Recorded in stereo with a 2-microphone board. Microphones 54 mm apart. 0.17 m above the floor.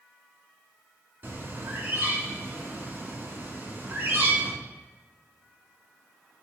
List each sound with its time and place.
1.2 s a bird: 40° right (ahead or behind), 1.4 m